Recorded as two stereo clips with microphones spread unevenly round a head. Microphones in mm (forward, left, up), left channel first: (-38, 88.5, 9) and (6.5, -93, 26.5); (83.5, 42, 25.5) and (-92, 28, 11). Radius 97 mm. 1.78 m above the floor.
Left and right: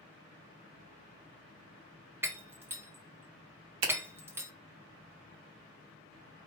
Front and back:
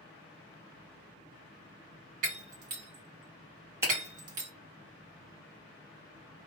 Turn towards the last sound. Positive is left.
turn(degrees=-95)